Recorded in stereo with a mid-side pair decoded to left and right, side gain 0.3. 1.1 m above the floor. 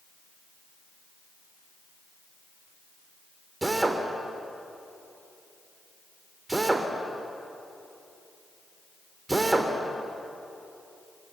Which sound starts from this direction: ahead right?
A drill, at 3.6 s.